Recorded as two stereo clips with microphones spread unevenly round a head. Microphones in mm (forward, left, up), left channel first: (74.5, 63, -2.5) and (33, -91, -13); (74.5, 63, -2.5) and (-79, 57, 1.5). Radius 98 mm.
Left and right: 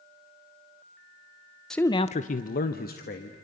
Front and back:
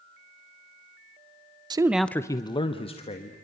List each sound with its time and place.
1.7 s a man speaking: 170° left, 0.6 m; by 3.4 s 50° left, 1.9 m